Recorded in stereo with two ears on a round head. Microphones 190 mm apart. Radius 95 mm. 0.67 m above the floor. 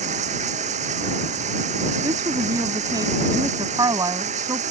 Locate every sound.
0.0 s running water: 35° right (ahead or behind)
2.0 s a woman speaking: 15° right (ahead or behind)